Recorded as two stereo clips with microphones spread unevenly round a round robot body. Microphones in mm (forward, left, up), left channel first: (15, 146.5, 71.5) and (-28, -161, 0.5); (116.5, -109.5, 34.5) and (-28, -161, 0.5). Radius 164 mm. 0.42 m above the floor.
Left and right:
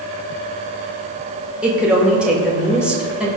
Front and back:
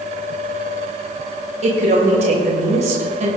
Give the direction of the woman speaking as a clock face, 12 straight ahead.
6 o'clock.